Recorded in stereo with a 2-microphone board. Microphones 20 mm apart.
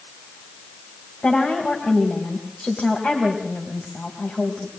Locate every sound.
1.2 s a woman speaking: 55° left (ahead or behind), 4 m